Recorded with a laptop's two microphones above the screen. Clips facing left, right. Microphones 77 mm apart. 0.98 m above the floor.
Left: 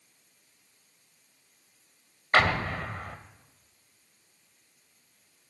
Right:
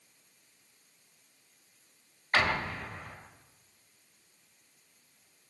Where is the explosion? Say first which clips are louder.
Left 5 dB; 70° left (ahead or behind), 1.6 m.